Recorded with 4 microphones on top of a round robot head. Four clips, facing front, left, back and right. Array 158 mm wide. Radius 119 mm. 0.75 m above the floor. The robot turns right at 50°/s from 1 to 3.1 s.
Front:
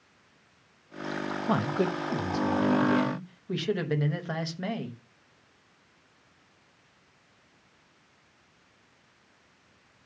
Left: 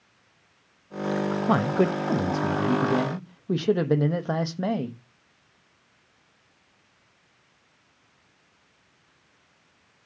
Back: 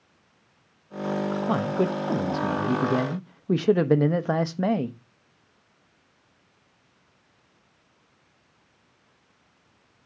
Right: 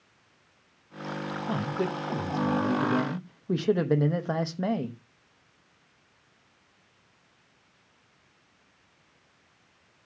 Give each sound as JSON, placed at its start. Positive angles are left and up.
{"t": 1.5, "sound": "a man speaking", "azimuth_deg": 95, "distance_m": 1.2}